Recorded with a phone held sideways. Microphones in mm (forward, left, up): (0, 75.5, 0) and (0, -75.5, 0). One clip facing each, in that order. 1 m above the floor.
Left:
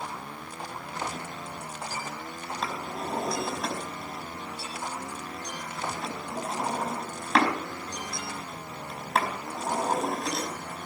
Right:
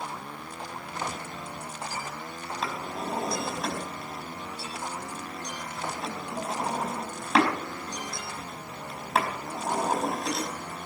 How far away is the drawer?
About 4.5 m.